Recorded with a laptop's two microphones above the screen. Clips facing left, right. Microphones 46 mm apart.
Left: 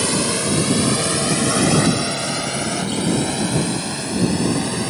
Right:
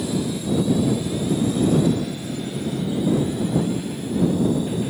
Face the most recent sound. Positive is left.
turn(degrees=75)  # may be behind; listen again after turning